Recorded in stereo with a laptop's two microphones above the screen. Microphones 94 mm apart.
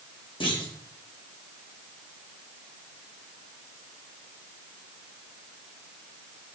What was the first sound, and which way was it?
A clunk, 60° left (ahead or behind).